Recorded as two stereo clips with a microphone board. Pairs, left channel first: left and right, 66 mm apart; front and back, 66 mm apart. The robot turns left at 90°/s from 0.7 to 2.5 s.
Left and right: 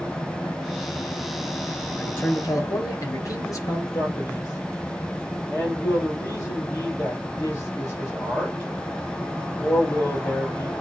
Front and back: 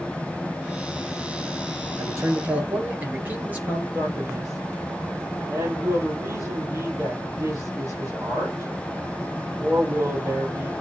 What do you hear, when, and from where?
2.0 s a man speaking: 165° left, 3 m; by 3.8 s 115° left, 3 m
3.9 s a man speaking: 140° left, 6 m